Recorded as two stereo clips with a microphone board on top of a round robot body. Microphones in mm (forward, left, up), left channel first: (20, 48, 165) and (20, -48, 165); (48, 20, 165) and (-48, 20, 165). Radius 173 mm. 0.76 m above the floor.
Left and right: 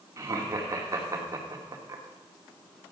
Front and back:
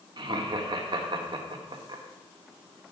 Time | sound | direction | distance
0.2 | laughter | 145° right | 2 m